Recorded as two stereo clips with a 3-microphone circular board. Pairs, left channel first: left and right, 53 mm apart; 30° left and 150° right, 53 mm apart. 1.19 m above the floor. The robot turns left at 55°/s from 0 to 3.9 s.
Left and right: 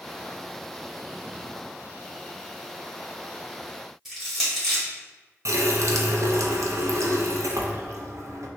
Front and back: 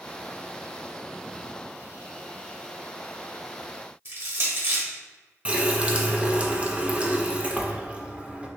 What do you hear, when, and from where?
4.0 s crushing: 175° right, 1.7 m
5.5 s a running tap: 85° right, 0.5 m